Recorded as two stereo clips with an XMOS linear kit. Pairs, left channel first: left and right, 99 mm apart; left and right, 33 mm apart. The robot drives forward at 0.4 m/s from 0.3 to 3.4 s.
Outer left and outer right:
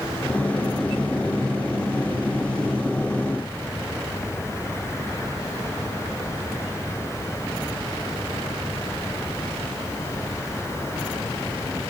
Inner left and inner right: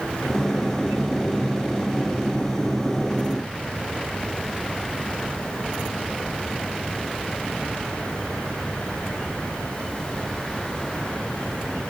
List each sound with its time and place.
Only background noise.